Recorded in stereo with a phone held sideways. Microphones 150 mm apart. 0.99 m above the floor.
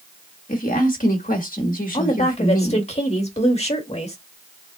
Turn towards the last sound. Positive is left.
turn(degrees=45)  # may be behind; listen again after turning